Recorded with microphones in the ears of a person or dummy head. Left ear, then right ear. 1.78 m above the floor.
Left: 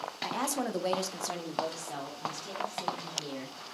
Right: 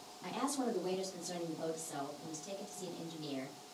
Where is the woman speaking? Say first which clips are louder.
Left 4 dB; 25° left (ahead or behind), 0.6 m; by 3.5 s 40° left (ahead or behind), 1.7 m.